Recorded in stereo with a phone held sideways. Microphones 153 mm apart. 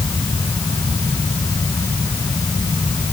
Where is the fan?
25° left (ahead or behind).